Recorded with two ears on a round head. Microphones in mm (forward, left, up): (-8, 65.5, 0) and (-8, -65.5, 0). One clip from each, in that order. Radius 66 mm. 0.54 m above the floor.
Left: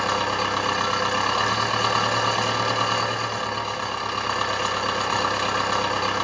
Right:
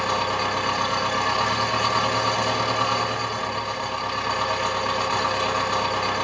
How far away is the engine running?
About 1.1 m.